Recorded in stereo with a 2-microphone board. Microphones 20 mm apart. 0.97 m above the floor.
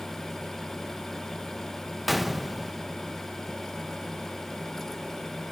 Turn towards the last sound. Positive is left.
turn(degrees=0)  # may be behind; listen again after turning